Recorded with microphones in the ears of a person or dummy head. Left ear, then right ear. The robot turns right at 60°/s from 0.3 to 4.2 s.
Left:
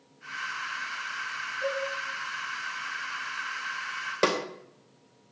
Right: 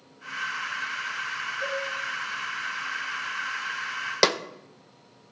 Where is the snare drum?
35° right (ahead or behind), 0.6 m.